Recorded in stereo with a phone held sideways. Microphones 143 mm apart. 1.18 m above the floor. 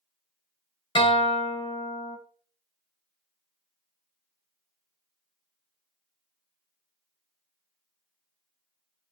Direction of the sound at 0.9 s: 35° left (ahead or behind).